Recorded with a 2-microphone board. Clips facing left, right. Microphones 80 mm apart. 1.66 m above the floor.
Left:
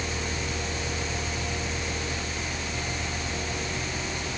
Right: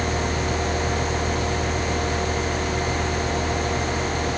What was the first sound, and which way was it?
Only background noise.